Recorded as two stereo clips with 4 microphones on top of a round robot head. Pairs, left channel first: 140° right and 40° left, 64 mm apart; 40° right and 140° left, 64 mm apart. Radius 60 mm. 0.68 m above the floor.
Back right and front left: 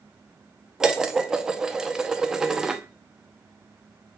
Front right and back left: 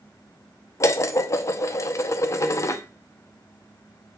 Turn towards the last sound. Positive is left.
turn(degrees=-35)